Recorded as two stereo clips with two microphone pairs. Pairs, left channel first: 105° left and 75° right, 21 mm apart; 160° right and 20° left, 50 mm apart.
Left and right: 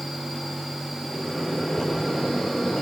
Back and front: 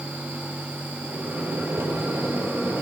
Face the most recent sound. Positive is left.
turn(degrees=55)